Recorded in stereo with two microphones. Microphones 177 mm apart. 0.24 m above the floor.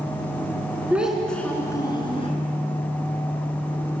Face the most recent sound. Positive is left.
turn(degrees=35)  # may be behind; listen again after turning